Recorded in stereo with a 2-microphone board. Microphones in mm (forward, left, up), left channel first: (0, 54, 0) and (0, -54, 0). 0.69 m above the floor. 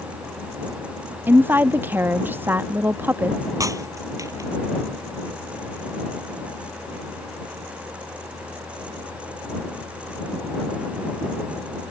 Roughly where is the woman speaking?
Centre.